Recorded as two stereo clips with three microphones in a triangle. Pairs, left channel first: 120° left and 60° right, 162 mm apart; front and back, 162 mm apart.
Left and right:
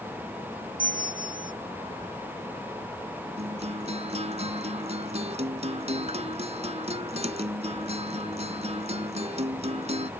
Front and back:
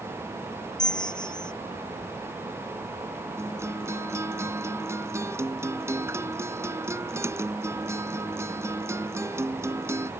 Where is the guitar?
105° right.